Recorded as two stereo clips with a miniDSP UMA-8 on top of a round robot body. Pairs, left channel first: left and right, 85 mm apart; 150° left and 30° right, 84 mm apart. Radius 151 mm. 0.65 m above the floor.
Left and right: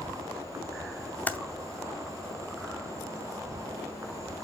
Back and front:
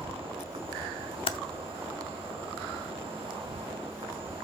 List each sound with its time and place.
0.0 s an insect: 35° right, 1.0 m
1.3 s typing on a keyboard: 165° left, 0.6 m